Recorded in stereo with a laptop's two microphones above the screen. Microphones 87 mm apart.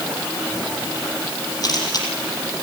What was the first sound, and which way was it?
A camera shutter, 45° left (ahead or behind).